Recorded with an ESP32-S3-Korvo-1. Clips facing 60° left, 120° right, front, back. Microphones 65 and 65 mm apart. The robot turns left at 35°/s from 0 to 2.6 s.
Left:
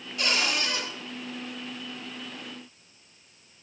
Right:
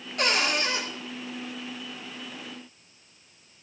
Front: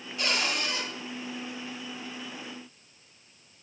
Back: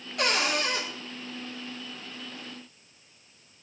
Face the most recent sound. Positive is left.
turn(degrees=120)